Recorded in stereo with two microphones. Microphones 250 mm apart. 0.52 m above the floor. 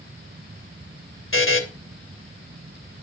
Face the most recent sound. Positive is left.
turn(degrees=55)  # may be behind; listen again after turning